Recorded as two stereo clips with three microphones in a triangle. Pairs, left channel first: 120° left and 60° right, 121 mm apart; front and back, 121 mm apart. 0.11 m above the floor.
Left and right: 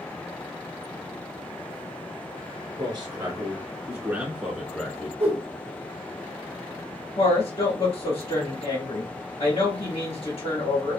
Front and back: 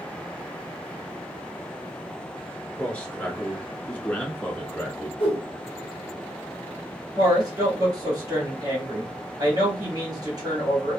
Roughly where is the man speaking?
Right.